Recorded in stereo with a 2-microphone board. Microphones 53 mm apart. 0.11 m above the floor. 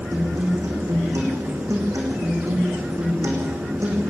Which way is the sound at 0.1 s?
75° right (ahead or behind).